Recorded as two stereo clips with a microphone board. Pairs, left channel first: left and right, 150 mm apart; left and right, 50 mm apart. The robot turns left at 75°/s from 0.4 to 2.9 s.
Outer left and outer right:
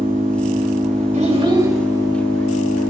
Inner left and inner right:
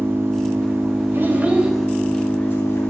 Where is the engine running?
80° right, 3.5 m; by 2.9 s 90° left, 3.5 m.